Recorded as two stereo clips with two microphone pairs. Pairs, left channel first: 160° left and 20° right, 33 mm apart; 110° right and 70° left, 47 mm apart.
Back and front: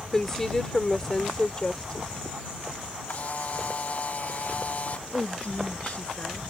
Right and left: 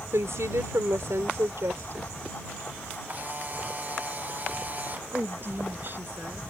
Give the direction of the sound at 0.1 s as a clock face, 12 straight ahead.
9 o'clock.